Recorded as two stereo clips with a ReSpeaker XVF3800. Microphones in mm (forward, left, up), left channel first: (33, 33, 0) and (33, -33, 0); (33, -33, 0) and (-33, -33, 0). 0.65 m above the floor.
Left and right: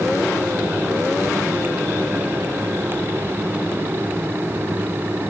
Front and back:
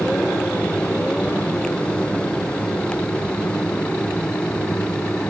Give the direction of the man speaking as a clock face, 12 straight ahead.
No man speaking in this recording.